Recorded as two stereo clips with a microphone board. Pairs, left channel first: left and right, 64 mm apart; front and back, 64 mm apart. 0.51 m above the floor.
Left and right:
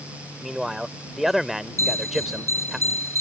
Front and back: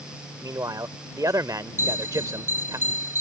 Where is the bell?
125° right.